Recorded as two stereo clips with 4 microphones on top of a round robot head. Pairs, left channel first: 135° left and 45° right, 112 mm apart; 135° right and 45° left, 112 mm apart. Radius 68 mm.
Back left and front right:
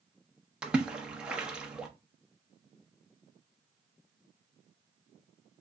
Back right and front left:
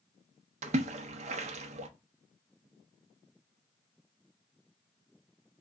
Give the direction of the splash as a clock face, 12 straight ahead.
11 o'clock.